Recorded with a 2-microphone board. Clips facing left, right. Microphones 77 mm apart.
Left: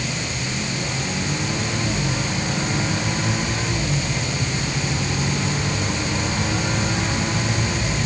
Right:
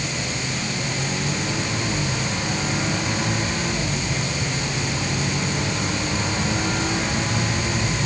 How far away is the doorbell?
No doorbell in this recording.